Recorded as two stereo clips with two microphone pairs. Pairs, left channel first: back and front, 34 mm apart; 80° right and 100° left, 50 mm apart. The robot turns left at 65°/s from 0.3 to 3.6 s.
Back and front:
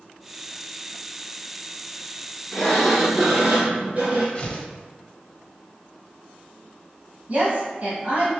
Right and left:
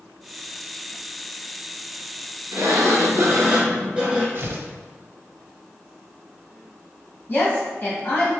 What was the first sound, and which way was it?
A sliding door, 105° left.